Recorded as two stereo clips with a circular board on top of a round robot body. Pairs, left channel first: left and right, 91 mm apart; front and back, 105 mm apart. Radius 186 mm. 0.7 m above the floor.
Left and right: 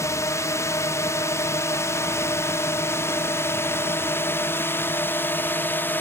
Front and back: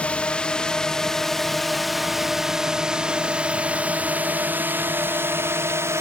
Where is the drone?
70° left; by 6.0 s 140° left.